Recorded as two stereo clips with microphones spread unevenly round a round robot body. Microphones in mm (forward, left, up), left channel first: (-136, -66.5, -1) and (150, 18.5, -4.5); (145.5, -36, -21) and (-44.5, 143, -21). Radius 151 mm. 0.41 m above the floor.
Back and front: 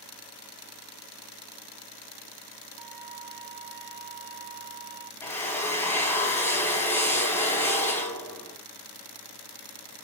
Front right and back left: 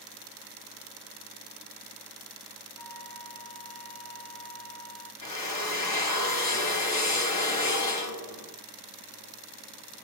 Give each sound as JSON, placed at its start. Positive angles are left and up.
{"t": 2.8, "sound": "a flute", "azimuth_deg": -35, "distance_m": 2.0}
{"t": 5.2, "sound": "a drill", "azimuth_deg": -80, "distance_m": 3.0}